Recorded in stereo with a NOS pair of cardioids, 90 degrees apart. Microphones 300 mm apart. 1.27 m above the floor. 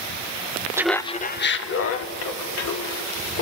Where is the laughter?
10° right, 0.9 m; by 3.4 s 65° left, 4 m.